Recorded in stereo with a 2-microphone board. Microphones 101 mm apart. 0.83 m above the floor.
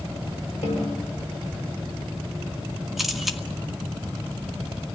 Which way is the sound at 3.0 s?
5° right (ahead or behind).